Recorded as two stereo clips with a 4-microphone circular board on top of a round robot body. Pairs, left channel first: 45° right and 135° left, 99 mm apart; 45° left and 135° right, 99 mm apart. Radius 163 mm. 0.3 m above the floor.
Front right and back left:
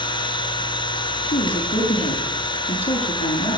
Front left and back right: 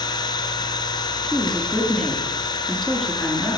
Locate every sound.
0.0 s an engine running: 5° right, 3 m
1.2 s a woman speaking: 45° right, 6.5 m